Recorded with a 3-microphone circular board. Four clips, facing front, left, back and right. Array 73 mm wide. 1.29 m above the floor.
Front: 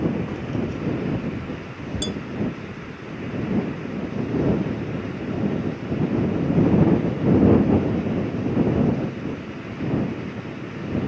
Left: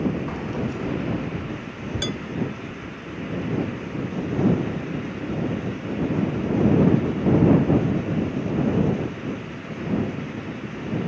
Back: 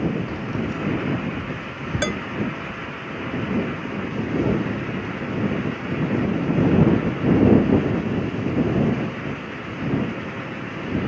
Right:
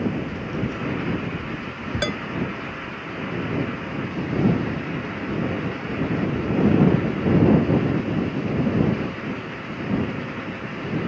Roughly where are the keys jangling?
Left.